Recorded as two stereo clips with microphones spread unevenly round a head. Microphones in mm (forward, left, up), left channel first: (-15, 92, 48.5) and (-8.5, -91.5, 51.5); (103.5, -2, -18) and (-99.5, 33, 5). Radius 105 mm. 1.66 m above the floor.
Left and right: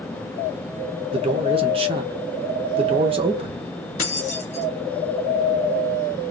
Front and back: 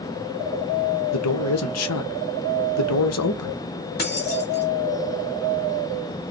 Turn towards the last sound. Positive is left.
turn(degrees=35)